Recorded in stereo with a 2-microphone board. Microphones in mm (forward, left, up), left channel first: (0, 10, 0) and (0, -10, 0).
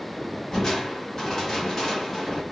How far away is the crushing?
About 1.5 m.